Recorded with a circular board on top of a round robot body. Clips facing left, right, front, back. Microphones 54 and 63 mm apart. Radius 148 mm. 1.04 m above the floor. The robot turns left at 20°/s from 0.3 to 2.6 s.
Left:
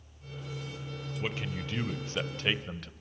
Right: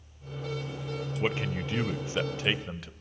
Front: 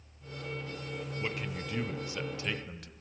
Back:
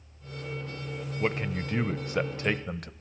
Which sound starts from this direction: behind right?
A man speaking, at 1.2 s.